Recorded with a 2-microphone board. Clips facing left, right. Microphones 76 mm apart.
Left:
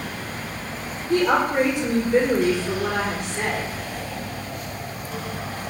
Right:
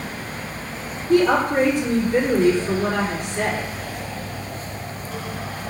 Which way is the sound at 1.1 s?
50° right (ahead or behind).